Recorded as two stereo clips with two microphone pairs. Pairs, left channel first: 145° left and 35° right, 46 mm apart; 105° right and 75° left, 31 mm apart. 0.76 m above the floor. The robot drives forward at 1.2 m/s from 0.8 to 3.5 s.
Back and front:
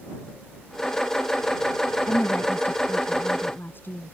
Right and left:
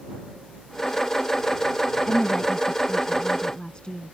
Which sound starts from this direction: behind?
A woman speaking, at 2.1 s.